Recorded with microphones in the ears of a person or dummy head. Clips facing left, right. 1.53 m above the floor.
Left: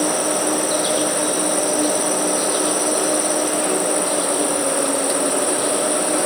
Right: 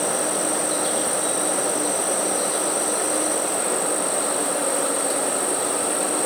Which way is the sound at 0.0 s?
75° left (ahead or behind).